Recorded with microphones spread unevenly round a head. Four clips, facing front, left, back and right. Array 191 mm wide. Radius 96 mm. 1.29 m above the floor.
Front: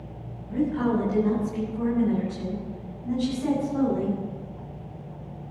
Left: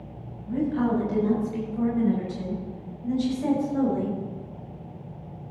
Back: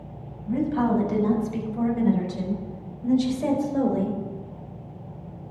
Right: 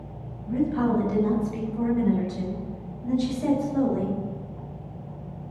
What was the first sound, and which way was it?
A woman speaking, 165° right.